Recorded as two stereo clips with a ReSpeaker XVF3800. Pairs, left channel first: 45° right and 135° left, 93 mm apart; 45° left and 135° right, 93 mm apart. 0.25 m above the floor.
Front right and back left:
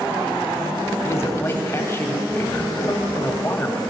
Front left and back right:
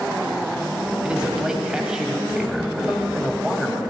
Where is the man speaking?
60° right, 1.1 m.